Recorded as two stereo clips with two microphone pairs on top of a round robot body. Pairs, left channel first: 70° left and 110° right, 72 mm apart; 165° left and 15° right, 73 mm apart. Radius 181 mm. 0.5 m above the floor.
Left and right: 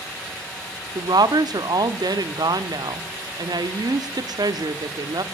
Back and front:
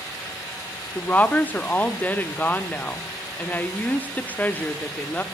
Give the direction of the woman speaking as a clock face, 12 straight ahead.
4 o'clock.